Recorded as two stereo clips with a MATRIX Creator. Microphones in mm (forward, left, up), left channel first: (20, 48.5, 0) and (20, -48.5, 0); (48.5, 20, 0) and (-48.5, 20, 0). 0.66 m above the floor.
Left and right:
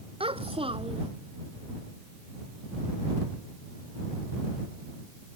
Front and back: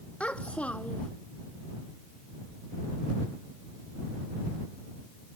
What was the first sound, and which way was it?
A child speaking, 75° right.